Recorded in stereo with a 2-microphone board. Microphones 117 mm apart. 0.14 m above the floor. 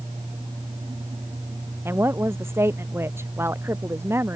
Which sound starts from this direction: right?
A woman speaking, at 1.9 s.